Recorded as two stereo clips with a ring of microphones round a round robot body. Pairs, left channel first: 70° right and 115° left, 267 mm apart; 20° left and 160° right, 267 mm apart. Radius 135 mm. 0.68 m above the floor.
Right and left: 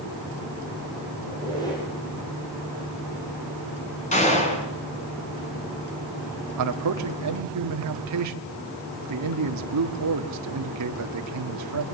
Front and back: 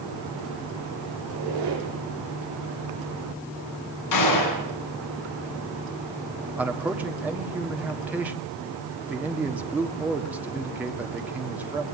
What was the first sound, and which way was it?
A squeak, 145° right.